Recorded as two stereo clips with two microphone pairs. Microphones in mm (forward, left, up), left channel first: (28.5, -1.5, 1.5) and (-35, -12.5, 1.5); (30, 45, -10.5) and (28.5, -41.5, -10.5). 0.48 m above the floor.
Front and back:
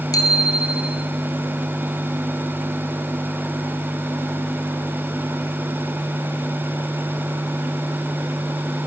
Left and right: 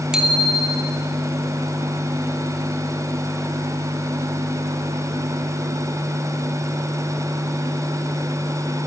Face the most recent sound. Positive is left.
turn(degrees=-10)